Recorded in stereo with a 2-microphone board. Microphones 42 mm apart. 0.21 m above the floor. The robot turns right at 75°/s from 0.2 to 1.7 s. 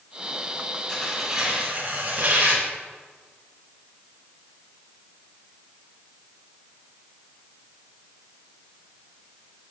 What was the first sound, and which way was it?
Tearing paper, 165° left.